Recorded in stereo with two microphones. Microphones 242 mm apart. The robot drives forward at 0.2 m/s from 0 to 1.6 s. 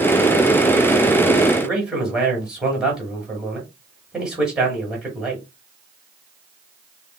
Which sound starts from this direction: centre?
A man speaking, at 1.6 s.